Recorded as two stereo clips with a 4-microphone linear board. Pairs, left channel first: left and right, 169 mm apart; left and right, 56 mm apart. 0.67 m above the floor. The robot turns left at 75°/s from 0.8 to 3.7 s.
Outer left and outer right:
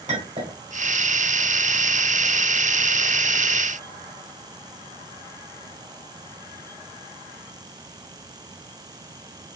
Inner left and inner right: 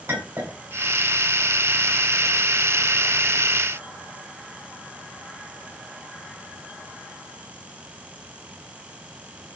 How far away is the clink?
About 1.8 m.